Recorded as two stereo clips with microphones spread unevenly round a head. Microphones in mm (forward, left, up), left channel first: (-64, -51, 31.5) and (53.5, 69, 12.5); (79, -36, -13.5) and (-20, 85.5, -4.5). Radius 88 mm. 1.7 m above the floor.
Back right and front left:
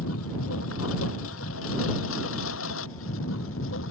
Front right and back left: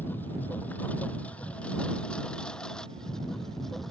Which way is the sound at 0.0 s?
130° right.